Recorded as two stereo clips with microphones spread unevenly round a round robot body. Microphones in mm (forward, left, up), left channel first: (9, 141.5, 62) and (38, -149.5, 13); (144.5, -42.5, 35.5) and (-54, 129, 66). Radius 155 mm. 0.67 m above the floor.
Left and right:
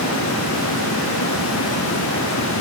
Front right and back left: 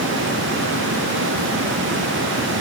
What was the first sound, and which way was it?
Only background noise.